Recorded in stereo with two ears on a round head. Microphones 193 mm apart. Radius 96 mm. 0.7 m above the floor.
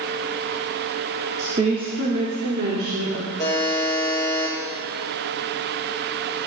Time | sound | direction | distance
1.4 | a woman speaking | 25° right (ahead or behind) | 1.8 m
3.4 | a buzzer | 15° left (ahead or behind) | 7.5 m